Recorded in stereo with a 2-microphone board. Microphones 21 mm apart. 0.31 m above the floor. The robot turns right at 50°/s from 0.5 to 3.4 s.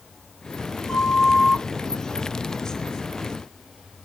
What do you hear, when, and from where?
0.9 s a flute: 20° left (ahead or behind), 1.5 m; by 1.6 s 15° left (ahead or behind), 1.5 m